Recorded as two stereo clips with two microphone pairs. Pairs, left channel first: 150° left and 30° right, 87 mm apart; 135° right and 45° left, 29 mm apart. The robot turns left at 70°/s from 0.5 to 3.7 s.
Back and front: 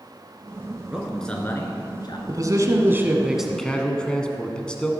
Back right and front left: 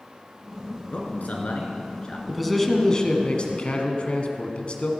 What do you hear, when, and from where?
0.9 s a man speaking: 105° right, 2 m; by 2.2 s 165° left, 2 m
2.3 s a man speaking: 35° right, 1.4 m; by 4.9 s 135° right, 1.4 m